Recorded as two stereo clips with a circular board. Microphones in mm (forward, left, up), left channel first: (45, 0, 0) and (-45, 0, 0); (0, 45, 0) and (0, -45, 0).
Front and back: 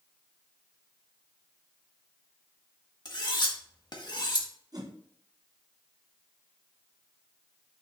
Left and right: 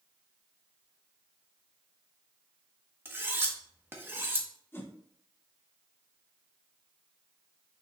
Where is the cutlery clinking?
25° right, 1.5 m.